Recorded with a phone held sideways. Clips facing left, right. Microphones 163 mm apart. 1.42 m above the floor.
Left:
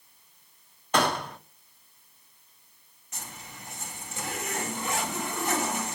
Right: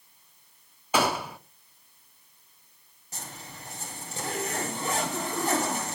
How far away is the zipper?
About 9 m.